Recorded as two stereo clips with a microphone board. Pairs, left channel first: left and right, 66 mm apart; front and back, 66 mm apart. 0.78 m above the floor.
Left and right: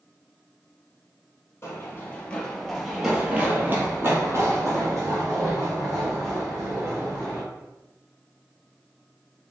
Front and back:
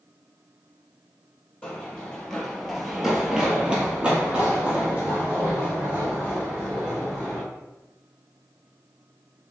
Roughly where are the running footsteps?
Ahead left.